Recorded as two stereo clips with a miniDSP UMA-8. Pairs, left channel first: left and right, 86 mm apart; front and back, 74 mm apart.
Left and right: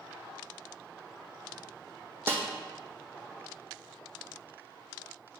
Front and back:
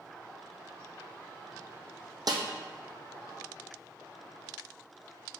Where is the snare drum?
150° right, 1.1 m.